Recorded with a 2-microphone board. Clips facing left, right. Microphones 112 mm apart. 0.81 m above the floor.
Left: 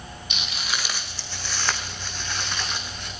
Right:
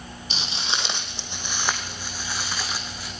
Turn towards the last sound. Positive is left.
turn(degrees=-5)  # may be behind; listen again after turning